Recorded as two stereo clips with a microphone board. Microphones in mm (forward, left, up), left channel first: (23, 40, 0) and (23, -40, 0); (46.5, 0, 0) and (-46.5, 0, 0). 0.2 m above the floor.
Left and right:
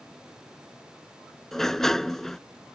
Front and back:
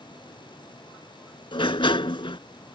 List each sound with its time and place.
1.5 s a sliding door: 5° left